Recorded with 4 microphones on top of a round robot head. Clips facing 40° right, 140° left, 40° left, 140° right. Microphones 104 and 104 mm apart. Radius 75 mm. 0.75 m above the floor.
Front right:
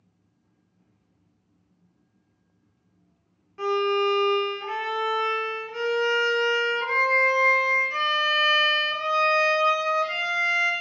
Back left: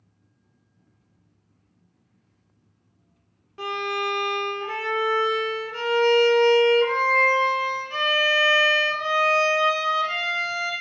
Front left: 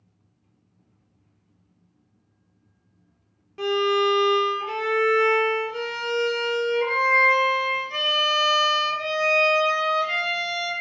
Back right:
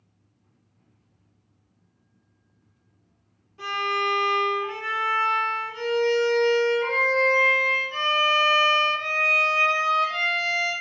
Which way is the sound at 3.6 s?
65° left.